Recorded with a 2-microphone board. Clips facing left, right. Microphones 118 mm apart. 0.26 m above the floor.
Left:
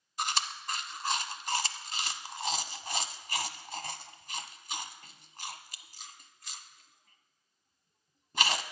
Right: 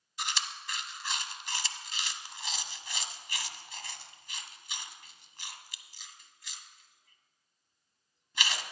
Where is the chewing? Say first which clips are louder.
Left 4 dB; 45° left (ahead or behind), 0.8 m.